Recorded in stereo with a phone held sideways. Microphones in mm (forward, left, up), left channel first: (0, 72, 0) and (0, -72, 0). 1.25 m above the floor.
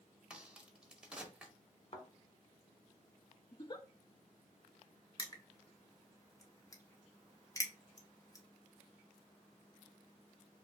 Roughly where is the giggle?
Left.